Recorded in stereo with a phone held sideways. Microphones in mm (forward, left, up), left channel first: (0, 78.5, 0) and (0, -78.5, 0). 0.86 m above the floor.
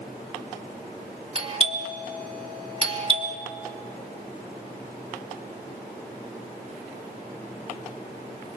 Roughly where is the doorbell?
Right.